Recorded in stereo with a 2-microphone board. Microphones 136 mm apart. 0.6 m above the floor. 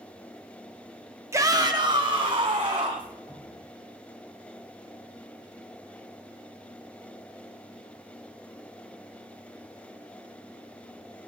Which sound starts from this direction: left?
Dripping, at 3.3 s.